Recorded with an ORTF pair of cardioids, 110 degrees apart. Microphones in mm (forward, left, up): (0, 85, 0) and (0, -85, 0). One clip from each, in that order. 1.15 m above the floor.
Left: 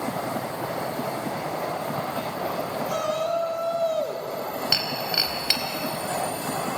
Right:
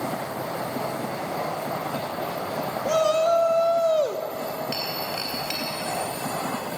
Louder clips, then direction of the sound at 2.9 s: Right 7 dB; 40° right.